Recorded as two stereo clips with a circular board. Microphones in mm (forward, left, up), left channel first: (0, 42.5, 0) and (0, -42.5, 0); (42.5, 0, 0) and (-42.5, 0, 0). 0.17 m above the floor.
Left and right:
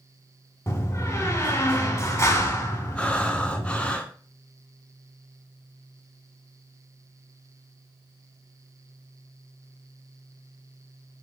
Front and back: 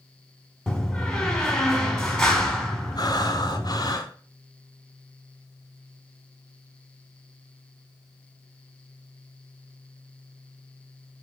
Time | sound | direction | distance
0.7 | a door slam | 75° left | 0.9 m
3.0 | breathing | 15° left | 0.6 m